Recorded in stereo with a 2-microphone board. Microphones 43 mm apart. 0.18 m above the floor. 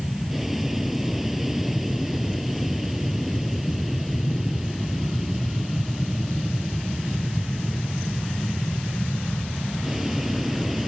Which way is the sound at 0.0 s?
5° right (ahead or behind).